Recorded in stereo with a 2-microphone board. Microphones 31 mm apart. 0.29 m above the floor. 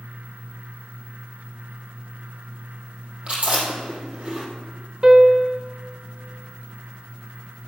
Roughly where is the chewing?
Right.